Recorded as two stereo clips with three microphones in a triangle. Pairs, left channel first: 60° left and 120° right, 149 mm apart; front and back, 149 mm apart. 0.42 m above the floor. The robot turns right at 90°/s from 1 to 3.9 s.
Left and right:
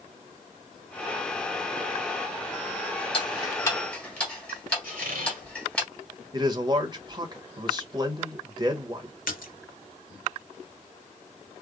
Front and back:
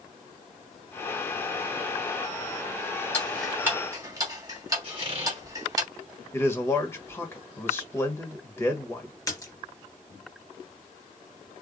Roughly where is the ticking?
Ahead left.